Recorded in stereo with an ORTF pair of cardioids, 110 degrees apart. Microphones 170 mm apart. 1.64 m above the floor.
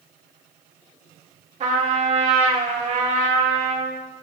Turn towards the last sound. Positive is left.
turn(degrees=-45)